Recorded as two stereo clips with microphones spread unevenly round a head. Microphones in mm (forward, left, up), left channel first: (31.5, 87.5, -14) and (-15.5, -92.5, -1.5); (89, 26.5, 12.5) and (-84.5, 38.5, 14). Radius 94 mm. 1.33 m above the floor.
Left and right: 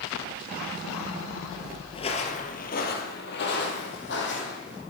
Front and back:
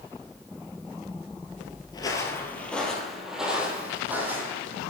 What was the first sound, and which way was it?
Footsteps, 40° left.